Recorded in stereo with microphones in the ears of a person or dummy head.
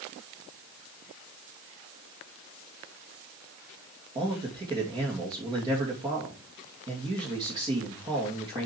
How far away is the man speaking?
About 2.5 m.